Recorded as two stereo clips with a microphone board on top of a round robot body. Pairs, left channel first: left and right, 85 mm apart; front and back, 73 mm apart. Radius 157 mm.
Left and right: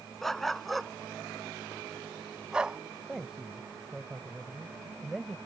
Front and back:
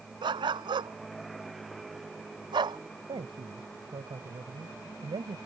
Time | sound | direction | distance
0.2 | a dog barking | straight behind | ?
3.1 | a man speaking | 175° right | ?